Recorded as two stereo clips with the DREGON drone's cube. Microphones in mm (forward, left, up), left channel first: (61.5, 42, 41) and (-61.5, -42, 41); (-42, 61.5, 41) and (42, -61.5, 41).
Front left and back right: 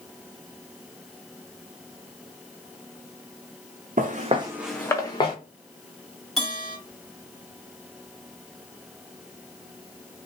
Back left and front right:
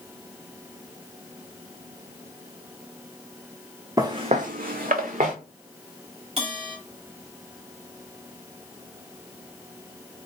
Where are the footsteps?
125° right, 0.7 m; by 5.3 s 20° right, 1.0 m.